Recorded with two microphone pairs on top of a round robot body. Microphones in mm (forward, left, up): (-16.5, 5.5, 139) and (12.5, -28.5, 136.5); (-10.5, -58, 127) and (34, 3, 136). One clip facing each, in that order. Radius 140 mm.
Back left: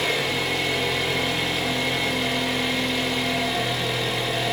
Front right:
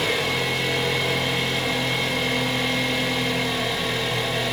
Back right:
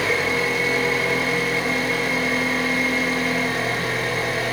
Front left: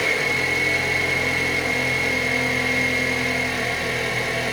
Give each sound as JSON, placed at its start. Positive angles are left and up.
{"t": 0.0, "sound": "an engine running", "azimuth_deg": -140, "distance_m": 1.1}